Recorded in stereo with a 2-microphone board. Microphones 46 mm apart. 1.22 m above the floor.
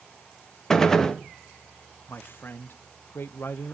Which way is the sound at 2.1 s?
60° left (ahead or behind).